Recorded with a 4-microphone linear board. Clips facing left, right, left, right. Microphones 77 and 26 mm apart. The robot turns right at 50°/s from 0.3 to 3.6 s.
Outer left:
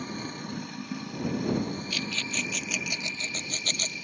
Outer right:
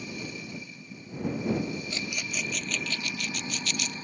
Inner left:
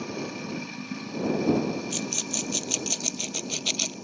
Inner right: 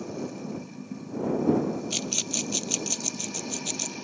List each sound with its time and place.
0.0 s running water: 55° left; by 4.0 s 140° right
1.9 s a rattle: 25° right (ahead or behind); by 3.9 s 50° left (ahead or behind)